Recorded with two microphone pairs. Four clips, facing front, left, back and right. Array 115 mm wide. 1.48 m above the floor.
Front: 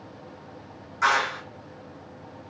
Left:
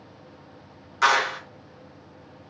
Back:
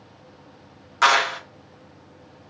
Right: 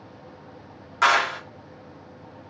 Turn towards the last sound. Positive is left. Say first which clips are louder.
# right 1 dB, back 4 dB
turn(degrees=-145)